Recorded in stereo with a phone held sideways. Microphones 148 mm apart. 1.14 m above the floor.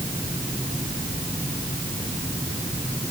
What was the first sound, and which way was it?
Only background noise.